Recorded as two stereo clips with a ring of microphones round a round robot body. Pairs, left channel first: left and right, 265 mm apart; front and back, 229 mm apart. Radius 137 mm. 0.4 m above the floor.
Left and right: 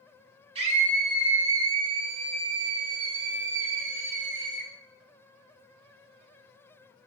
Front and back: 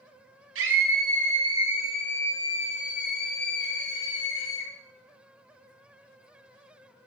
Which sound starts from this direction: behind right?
A scream, at 0.6 s.